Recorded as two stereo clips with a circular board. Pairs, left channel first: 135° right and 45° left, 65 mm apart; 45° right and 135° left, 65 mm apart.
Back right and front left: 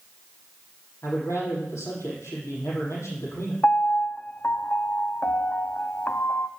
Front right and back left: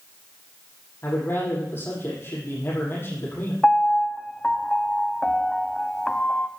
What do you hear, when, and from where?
1.0 s a man speaking: 95° right, 7 m
3.6 s a piano: 110° right, 0.6 m